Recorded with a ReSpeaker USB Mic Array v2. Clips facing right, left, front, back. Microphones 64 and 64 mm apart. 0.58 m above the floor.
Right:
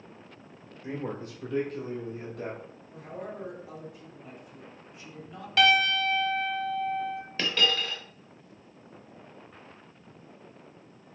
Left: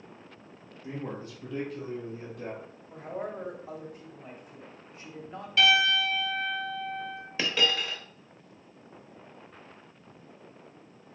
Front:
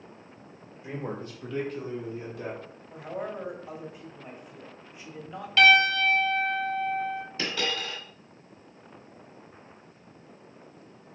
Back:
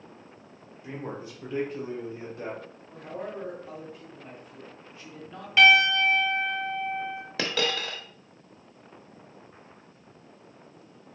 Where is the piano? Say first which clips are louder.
Right 1 dB, back 1 dB; 105° right, 1.3 m.